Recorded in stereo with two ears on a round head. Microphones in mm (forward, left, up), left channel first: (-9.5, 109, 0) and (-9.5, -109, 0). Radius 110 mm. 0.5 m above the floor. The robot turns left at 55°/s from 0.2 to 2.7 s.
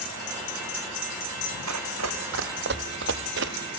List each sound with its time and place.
1.7 s running footsteps: 75° right (ahead or behind), 2 m; by 3.5 s 45° right (ahead or behind), 0.6 m